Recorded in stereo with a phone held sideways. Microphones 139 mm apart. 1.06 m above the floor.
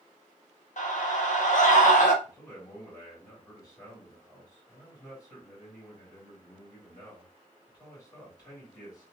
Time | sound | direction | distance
0.8 | a scream | 65° left (ahead or behind) | 1.1 m
2.2 | a man speaking | 25° left (ahead or behind) | 2.5 m